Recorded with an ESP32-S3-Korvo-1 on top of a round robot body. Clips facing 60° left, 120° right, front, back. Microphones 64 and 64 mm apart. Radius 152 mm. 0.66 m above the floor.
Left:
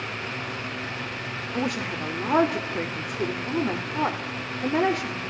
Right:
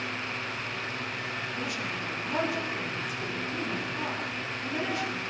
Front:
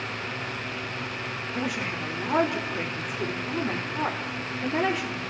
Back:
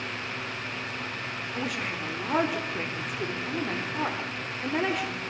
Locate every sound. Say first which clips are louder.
1.5 s a woman speaking: left 5 dB, front 2 dB; 90° left, 2 m